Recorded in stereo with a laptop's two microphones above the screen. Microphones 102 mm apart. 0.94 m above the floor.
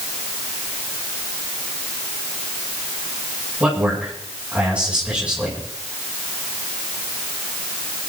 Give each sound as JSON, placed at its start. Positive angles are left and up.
{"t": 3.6, "sound": "a man speaking", "side_deg": -10, "distance_m": 8.5}